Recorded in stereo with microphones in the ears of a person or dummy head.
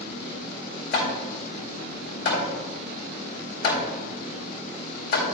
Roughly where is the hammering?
Left.